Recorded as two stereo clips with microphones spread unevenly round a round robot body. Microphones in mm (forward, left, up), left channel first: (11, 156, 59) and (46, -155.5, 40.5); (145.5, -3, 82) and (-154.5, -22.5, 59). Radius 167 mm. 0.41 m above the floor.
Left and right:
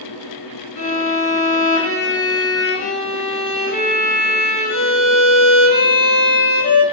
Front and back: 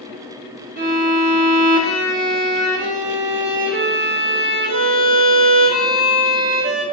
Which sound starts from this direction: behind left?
A violin, at 0.8 s.